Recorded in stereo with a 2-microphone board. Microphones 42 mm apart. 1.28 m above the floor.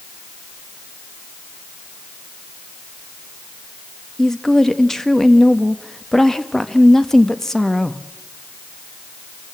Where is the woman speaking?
10° left (ahead or behind), 1.4 m.